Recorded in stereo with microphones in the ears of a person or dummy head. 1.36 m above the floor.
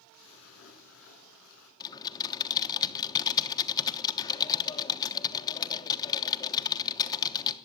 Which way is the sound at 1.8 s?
25° left (ahead or behind).